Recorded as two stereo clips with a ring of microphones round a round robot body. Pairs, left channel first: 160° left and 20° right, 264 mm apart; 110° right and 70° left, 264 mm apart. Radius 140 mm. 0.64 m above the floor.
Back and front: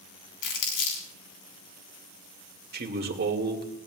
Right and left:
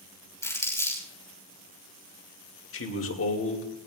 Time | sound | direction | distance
0.4 | crumpling | 170° left | 5.5 m
2.7 | a man speaking | 75° right | 2.5 m